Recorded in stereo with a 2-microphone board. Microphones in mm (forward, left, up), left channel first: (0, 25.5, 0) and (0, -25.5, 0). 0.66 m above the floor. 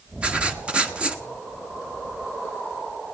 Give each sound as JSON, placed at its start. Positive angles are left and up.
{"t": 0.2, "sound": "writing", "side_deg": -20, "distance_m": 1.6}